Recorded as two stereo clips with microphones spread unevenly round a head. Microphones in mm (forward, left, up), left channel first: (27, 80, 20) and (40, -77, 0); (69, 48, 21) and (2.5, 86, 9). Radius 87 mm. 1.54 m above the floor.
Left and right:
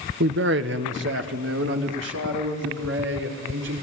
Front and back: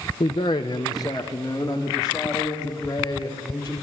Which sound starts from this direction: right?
A man speaking, at 0.2 s.